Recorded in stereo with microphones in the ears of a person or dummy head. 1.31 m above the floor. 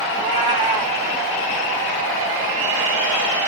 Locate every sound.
0.1 s a cat meowing: 25° right (ahead or behind), 1.1 m